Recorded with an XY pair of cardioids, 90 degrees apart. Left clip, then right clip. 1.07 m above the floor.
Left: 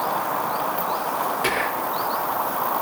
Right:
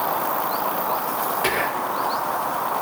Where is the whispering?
Straight ahead, 4.5 m.